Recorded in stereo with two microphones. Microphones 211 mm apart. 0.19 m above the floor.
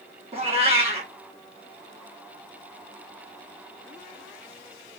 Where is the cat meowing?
30° right (ahead or behind), 1.0 m.